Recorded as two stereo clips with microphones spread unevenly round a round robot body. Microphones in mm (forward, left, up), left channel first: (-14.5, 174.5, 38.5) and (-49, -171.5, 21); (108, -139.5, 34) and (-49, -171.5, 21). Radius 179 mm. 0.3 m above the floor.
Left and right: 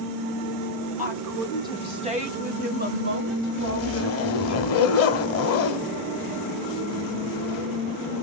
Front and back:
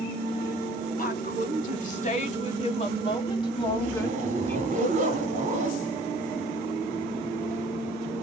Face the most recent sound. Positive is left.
turn(degrees=135)